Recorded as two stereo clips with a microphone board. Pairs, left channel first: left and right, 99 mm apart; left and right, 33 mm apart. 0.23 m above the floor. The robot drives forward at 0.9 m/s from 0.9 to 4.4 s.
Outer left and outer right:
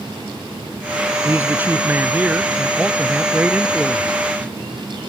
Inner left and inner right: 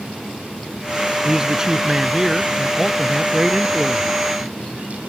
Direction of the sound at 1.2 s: 25° right (ahead or behind).